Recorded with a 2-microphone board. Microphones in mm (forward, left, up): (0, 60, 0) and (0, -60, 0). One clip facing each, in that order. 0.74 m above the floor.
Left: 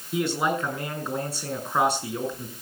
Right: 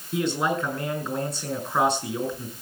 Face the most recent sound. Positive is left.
turn(degrees=10)  # may be behind; listen again after turning